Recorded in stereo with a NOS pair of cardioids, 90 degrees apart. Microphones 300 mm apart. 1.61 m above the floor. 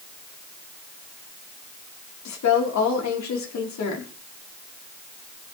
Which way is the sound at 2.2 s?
60° left.